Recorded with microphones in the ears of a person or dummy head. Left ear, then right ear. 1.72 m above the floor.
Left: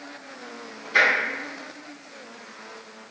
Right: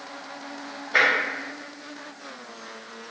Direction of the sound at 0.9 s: 45° right (ahead or behind).